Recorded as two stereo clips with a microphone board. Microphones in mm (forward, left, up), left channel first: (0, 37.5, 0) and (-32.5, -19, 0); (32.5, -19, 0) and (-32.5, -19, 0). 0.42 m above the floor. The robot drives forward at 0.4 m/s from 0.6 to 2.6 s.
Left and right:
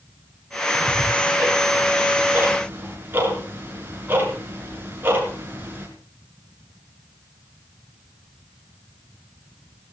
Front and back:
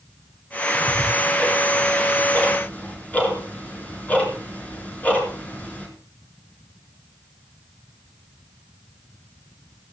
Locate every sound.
0.7 s ticking: 60° right, 6 m; by 5.9 s 65° right, 5.5 m